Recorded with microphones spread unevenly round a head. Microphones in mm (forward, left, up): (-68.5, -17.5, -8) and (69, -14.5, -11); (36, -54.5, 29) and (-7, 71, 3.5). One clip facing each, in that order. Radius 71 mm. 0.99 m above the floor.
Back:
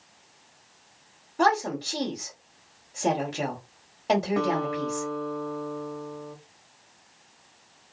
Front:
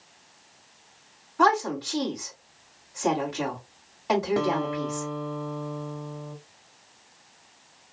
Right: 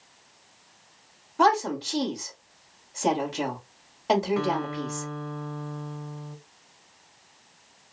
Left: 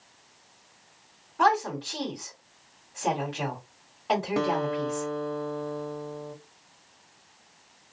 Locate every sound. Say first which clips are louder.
1.4 s a woman speaking: front 1 dB, right 2 dB; 125° right, 1.6 m
4.4 s a guitar: even, left 1 dB; 65° left, 0.8 m